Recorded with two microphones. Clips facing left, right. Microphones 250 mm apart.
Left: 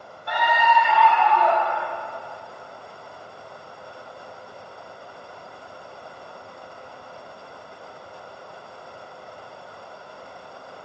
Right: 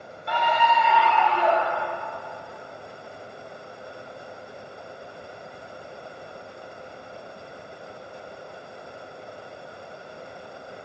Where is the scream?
30° right (ahead or behind), 1.5 m; by 1.9 s 35° right (ahead or behind), 3 m.